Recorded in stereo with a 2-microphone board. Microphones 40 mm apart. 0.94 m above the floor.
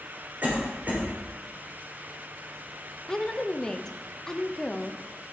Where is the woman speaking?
15° left (ahead or behind), 0.6 m.